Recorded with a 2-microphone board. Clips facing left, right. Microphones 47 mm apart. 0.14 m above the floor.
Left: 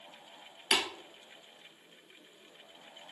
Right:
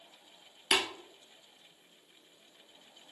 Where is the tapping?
15° right (ahead or behind), 0.9 m.